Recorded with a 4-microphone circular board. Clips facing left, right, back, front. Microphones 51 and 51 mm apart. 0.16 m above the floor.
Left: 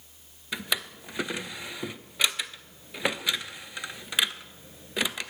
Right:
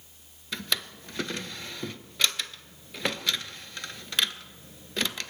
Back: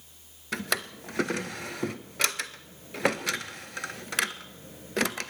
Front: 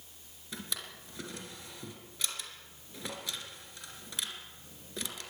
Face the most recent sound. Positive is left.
turn(degrees=165)